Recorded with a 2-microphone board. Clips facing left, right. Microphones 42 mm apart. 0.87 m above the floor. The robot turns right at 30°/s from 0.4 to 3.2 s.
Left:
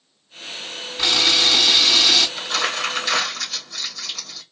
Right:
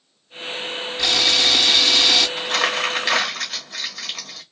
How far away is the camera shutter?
About 1.6 m.